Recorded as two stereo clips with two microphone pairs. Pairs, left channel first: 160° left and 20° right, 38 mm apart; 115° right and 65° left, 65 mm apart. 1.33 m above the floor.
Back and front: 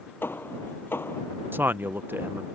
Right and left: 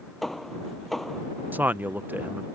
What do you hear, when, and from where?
0.2 s hammering: 160° left
1.5 s a man speaking: 5° left